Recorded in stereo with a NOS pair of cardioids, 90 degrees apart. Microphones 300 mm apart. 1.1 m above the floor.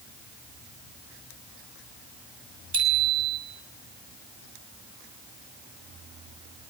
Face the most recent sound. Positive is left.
turn(degrees=-70)